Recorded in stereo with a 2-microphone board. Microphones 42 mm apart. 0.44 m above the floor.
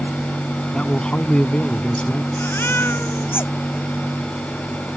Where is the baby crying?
55° left (ahead or behind).